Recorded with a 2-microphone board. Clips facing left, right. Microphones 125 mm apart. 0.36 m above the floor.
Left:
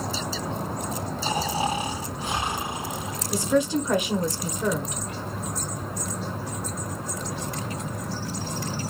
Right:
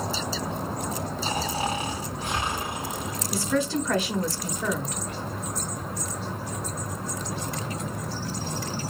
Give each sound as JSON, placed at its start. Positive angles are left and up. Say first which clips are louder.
{"t": 1.2, "sound": "snoring", "louder": "left 3 dB", "side_deg": 15, "distance_m": 3.0}
{"t": 3.3, "sound": "a woman speaking", "louder": "left 3 dB", "side_deg": 15, "distance_m": 0.9}